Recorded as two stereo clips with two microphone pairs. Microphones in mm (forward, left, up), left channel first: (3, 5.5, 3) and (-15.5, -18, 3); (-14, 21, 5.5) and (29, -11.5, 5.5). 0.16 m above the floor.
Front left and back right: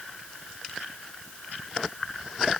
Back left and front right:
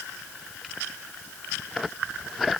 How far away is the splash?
No splash in this recording.